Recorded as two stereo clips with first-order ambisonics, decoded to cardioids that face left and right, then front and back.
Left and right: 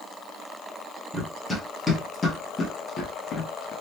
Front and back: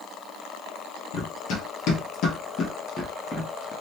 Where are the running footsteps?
5° left, 1.8 m; by 3.7 s 95° left, 1.2 m.